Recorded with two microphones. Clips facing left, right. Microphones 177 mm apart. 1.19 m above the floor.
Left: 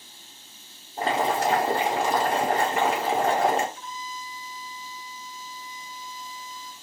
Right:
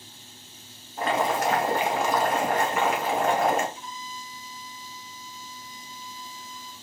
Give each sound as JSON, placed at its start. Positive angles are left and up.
{"t": 1.0, "sound": "boiling", "side_deg": 30, "distance_m": 1.4}
{"t": 3.8, "sound": "a violin", "side_deg": -15, "distance_m": 2.5}